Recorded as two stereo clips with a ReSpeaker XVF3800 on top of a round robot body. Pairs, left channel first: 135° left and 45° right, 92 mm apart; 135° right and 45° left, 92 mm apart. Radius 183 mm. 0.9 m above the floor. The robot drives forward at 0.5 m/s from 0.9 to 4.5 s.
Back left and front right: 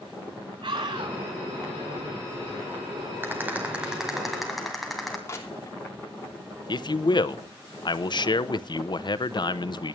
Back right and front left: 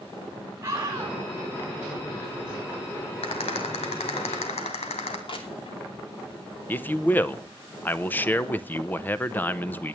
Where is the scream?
20° right, 8.5 m.